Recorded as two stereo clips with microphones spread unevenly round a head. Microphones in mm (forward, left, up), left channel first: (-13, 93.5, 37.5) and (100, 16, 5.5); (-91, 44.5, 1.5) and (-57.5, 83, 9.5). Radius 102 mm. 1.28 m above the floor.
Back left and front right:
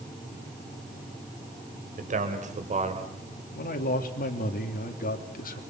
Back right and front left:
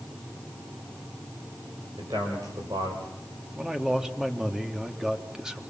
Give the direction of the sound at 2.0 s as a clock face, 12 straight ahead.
12 o'clock.